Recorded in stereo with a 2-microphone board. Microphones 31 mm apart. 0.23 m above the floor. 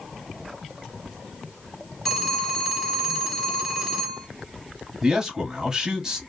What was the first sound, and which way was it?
A phone ringing, centre (ahead or behind).